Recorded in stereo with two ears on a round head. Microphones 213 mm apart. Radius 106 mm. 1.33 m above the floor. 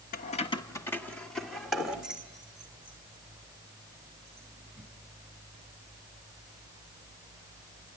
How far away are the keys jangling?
About 0.8 m.